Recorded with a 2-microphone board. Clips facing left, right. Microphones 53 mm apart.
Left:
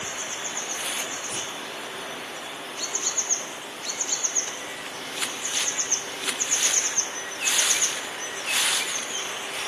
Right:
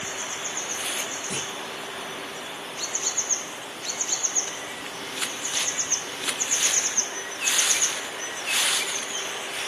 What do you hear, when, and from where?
1.3 s a clunk: 70° right (ahead or behind), 2.5 m